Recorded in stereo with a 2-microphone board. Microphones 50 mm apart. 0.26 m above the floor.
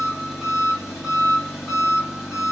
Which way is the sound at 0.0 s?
Centre (ahead or behind).